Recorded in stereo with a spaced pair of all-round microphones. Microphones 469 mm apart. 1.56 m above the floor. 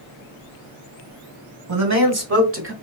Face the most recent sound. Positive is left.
turn(degrees=-25)  # may be behind; listen again after turning